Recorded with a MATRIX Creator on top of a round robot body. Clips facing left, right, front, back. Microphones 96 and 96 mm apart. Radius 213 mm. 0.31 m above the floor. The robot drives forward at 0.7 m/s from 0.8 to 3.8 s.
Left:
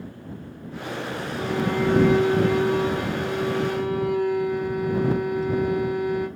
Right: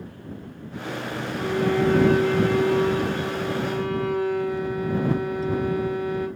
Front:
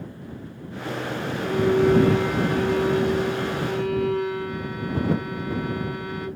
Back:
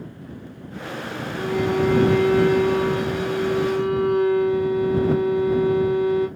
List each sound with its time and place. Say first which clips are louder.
1.4 s a violin: right 2 dB, front 1 dB; 160° left, 1.3 m; by 6.3 s 170° left, 3 m